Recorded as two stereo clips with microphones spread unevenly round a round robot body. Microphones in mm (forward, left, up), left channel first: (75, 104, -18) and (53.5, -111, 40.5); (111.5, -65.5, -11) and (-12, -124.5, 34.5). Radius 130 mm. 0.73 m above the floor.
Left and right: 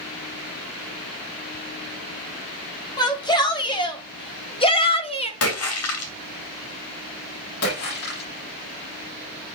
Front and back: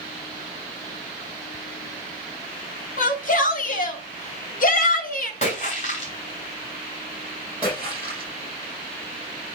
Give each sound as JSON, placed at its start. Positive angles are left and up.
{"t": 3.0, "sound": "a shout", "azimuth_deg": 15, "distance_m": 3.5}
{"t": 5.4, "sound": "a splash", "azimuth_deg": 85, "distance_m": 2.5}
{"t": 7.6, "sound": "a splash", "azimuth_deg": 120, "distance_m": 6.5}